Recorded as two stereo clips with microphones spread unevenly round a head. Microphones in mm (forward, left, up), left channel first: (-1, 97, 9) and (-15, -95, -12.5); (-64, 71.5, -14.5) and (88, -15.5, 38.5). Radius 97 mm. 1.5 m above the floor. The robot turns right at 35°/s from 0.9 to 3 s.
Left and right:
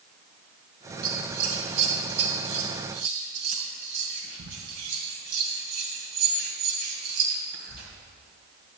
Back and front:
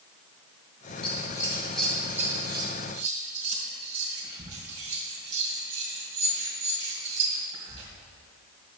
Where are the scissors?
140° right, 2.5 m; by 7.9 s 70° right, 2.5 m.